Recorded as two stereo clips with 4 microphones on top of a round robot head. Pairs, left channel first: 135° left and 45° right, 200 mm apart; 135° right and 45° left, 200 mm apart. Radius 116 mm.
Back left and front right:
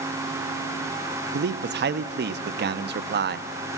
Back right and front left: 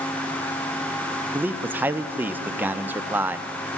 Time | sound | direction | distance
1.3 | a man speaking | 35° right | 0.7 m